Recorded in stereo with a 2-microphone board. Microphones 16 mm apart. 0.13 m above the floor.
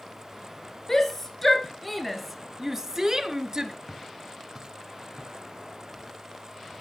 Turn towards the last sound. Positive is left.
turn(degrees=-50)  # may be behind; listen again after turning